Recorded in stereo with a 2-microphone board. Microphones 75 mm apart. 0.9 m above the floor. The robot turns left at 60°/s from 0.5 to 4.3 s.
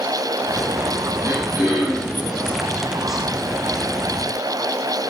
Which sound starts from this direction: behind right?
Throat clearing, at 1.2 s.